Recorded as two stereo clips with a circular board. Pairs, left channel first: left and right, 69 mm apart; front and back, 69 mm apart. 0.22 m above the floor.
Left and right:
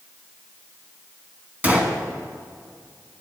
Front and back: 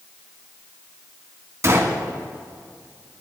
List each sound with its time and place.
1.6 s a gunshot: 150° right, 1.5 m